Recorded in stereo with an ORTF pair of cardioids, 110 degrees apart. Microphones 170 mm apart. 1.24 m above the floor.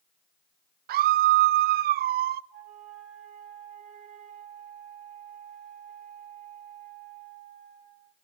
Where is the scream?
65° right, 0.5 m.